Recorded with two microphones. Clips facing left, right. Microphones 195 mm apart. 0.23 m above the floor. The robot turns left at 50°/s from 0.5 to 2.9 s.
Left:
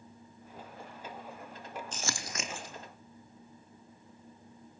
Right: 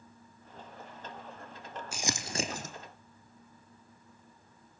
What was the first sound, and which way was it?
Crumpling, 10° right (ahead or behind).